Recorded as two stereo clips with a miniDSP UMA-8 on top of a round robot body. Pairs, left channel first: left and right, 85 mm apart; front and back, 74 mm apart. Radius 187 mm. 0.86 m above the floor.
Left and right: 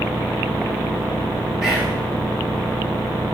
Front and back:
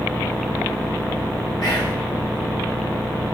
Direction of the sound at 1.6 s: 5° right.